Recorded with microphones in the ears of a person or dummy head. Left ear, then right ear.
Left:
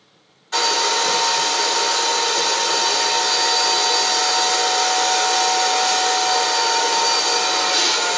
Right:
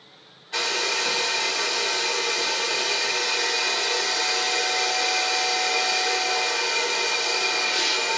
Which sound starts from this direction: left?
A hair dryer, at 0.5 s.